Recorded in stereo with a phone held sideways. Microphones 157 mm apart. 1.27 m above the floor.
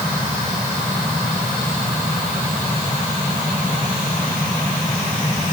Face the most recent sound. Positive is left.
No sound to turn to.